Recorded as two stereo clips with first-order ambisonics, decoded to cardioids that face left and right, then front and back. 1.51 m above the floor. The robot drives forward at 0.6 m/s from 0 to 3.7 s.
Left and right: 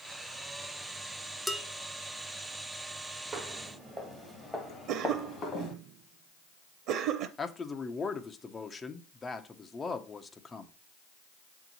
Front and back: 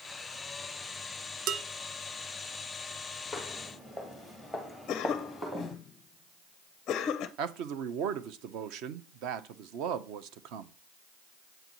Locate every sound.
1.5 s dishes clattering: straight behind, 0.8 m
3.3 s footsteps: 80° right, 1.6 m; by 5.7 s 105° left, 1.7 m
4.9 s a cough: 55° right, 0.5 m
7.4 s a man speaking: 165° left, 0.7 m